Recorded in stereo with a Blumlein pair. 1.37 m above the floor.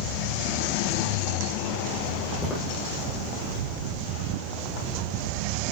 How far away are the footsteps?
About 5 m.